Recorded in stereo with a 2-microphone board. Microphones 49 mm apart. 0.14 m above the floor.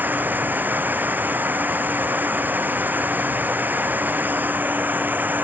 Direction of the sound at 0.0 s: 40° right (ahead or behind).